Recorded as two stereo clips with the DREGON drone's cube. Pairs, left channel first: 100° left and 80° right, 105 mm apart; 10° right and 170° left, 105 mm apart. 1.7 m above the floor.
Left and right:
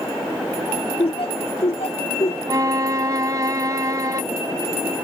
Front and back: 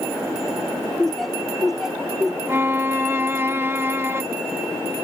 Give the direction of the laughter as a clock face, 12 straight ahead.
10 o'clock.